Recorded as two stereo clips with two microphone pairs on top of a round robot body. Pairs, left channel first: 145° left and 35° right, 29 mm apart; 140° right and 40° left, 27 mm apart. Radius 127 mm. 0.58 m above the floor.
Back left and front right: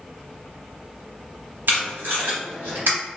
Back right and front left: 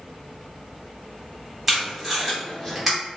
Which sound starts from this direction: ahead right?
Tape being pulled, at 1.7 s.